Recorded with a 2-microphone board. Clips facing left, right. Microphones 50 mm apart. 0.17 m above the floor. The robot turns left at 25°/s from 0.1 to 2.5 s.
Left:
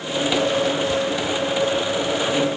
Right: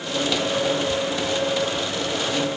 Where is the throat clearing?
No throat clearing in this recording.